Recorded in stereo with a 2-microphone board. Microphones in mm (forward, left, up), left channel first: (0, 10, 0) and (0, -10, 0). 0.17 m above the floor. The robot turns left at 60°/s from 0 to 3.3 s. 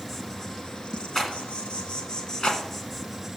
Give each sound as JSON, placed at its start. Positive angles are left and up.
{"t": 0.0, "sound": "an insect", "azimuth_deg": 175, "distance_m": 1.0}
{"t": 1.1, "sound": "a rattle", "side_deg": 20, "distance_m": 1.5}